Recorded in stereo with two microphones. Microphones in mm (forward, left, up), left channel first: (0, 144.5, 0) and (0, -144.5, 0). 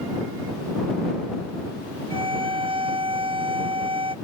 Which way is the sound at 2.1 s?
20° right (ahead or behind).